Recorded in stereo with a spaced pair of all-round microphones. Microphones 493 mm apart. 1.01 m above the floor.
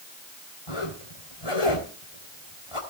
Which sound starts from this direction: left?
A zipper, at 0.7 s.